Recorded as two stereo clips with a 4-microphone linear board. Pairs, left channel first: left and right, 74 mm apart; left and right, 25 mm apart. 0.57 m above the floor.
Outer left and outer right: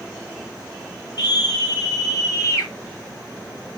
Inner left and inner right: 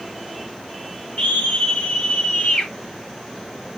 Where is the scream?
60° left (ahead or behind), 5.5 m; by 2.7 s 45° left (ahead or behind), 3.5 m.